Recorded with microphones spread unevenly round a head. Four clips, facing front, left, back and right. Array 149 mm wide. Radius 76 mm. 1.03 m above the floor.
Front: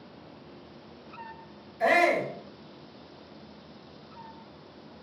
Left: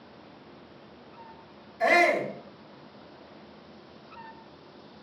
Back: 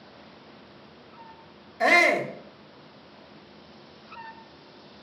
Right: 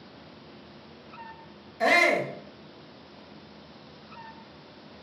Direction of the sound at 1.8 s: 160° right.